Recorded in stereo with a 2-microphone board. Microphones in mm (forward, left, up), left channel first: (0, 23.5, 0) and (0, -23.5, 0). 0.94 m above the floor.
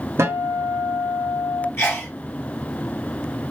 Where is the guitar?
80° right, 1.3 m.